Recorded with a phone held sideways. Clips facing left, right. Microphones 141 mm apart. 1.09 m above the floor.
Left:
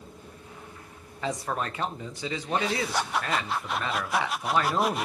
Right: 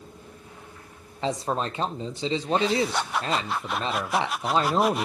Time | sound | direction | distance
1.2 | a man speaking | 25° right (ahead or behind) | 0.6 m